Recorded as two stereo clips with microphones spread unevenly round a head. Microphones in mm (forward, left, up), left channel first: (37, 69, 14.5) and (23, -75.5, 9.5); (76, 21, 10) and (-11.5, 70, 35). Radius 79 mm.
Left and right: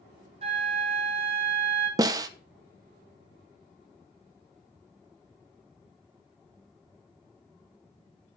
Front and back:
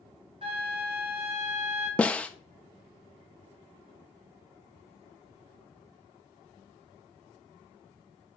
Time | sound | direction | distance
0.4 | a flute | 155° right | 1.7 m
2.0 | a snare drum | 130° right | 0.6 m